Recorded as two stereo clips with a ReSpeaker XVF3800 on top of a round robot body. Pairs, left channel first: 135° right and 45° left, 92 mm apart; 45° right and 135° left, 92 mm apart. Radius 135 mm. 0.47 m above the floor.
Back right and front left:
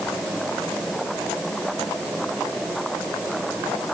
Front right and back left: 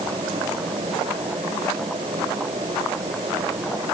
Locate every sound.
Only background noise.